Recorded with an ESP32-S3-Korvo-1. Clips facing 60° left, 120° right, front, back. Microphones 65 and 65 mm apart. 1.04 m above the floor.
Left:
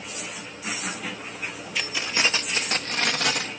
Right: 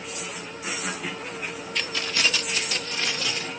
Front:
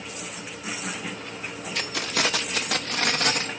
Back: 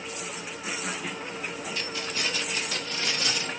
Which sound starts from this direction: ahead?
Keys jangling, at 1.8 s.